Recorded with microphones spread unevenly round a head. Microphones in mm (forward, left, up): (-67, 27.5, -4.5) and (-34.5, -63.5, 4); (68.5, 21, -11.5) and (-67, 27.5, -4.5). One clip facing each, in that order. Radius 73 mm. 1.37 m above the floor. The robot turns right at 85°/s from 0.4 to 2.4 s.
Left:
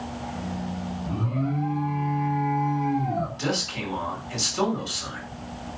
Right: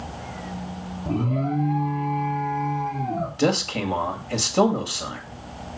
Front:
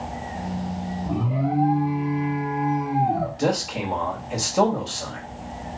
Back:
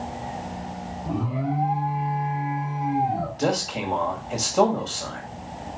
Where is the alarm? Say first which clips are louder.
Right 5 dB, front 2 dB; 100° right, 2 m; by 3.3 s 15° left, 2 m.